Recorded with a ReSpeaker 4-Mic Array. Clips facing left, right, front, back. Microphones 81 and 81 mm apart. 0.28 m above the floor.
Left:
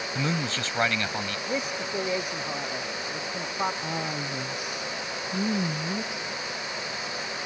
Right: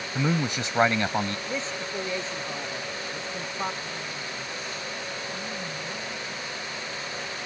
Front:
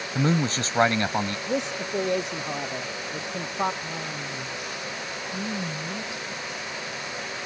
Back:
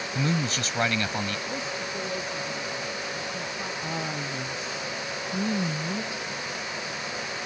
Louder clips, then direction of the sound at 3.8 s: Left 4 dB, back 2 dB; 115° left.